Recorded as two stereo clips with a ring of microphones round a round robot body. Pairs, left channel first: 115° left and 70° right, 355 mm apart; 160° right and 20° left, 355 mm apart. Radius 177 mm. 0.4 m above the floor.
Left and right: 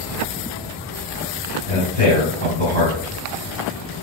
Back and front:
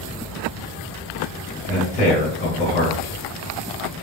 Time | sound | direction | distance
1.7 | a man speaking | 95° right | 1.9 m